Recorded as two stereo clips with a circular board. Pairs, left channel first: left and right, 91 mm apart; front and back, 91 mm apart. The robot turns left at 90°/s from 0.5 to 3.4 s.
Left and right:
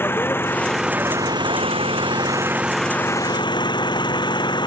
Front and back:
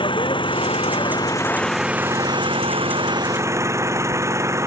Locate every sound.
0.0 s an engine running: 25° left; by 4.7 s 125° left